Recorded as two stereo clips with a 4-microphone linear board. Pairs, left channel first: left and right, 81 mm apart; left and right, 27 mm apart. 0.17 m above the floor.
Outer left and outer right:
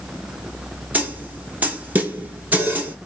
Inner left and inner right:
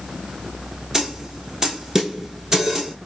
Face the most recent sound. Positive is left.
turn(degrees=-20)  # may be behind; listen again after turning